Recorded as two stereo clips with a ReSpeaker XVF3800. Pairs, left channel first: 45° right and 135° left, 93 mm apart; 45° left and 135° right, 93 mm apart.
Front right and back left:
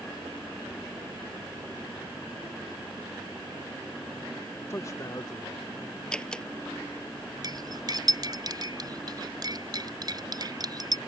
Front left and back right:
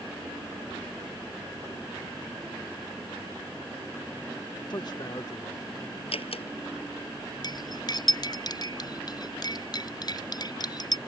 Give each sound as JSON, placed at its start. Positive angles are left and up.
{"t": 4.7, "sound": "a man speaking", "azimuth_deg": 15}
{"t": 6.1, "sound": "a door slam", "azimuth_deg": 35}
{"t": 7.4, "sound": "cutlery clinking", "azimuth_deg": 90}